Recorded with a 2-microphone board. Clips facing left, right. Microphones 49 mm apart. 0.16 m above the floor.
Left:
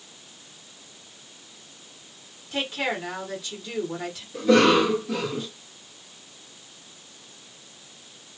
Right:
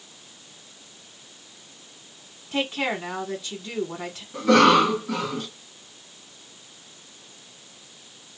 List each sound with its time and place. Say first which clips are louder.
2.5 s a woman speaking: right 2 dB; 25° right (ahead or behind), 1.4 m
4.3 s a cough: right 2 dB; 55° right (ahead or behind), 2 m